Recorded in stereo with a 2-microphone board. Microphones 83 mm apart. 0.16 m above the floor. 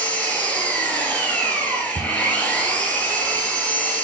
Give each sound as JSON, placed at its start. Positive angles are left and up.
{"t": 0.0, "sound": "an engine running", "side_deg": 15, "distance_m": 1.9}
{"t": 1.9, "sound": "a cupboard door", "side_deg": 10, "distance_m": 0.5}